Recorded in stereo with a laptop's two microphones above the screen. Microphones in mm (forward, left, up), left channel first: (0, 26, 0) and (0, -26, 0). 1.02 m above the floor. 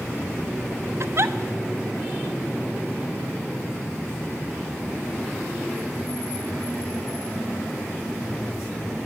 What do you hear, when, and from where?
1.0 s a giggle: 55° right (ahead or behind), 0.9 m